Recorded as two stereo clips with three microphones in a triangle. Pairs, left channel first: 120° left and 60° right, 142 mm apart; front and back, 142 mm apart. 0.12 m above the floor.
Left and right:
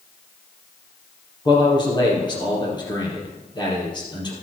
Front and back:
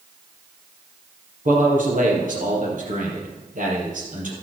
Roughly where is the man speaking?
Behind.